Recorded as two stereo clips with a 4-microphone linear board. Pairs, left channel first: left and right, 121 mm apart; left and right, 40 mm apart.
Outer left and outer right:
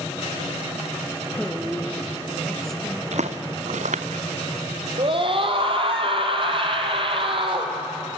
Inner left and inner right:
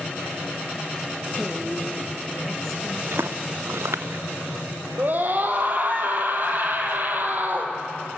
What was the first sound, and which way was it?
A woman speaking, 5° left (ahead or behind).